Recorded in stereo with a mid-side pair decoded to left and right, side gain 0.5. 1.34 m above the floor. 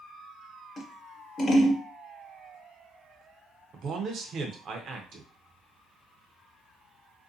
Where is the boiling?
I don't hear boiling.